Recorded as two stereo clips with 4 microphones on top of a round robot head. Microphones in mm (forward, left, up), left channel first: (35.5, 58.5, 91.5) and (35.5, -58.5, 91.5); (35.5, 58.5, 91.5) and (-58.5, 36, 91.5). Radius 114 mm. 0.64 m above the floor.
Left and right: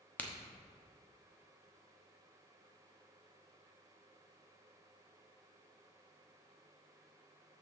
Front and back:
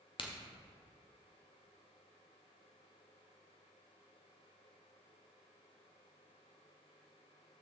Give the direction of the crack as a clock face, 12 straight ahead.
12 o'clock.